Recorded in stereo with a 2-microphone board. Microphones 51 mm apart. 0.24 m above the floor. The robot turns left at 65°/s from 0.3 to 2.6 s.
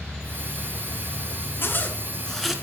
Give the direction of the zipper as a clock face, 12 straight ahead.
10 o'clock.